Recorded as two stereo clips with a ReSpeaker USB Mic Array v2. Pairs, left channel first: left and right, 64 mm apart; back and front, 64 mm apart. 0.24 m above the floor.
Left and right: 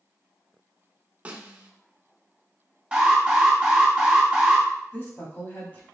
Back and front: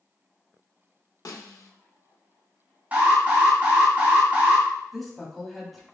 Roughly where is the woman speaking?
Left.